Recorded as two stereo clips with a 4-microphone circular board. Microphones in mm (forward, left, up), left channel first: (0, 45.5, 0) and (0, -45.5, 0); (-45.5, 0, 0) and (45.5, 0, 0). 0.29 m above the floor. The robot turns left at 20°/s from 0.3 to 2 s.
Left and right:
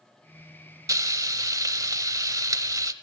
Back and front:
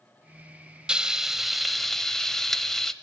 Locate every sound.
0.9 s frying: 75° right, 0.6 m; by 2.9 s 95° right, 0.6 m